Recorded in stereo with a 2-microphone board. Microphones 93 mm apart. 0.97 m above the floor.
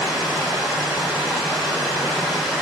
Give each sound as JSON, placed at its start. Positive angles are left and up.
{"t": 0.0, "sound": "running water", "side_deg": -10, "distance_m": 2.0}